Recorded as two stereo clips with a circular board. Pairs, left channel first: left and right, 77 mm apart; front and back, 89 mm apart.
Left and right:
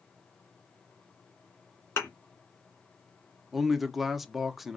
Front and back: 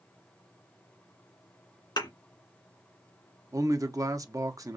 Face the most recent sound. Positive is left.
turn(degrees=-175)